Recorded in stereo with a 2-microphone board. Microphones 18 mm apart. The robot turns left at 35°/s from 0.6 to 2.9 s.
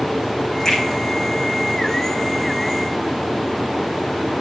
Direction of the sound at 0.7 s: 20° left (ahead or behind).